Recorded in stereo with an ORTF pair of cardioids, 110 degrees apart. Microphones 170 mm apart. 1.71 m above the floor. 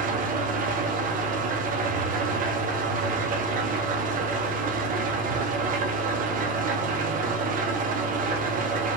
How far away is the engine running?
About 1.3 m.